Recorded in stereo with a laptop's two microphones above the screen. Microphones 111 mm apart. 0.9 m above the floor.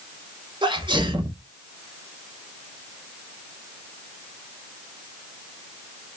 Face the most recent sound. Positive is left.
turn(degrees=-45)  # may be behind; listen again after turning